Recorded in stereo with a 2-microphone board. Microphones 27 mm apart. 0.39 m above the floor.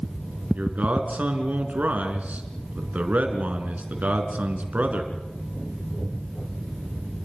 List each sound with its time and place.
0.6 s a man speaking: 70° right (ahead or behind), 4 m